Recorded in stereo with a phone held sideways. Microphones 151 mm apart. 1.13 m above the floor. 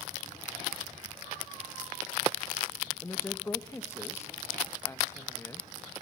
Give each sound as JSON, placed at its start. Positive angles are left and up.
{"t": 3.0, "sound": "a woman speaking", "side_deg": 20, "distance_m": 1.2}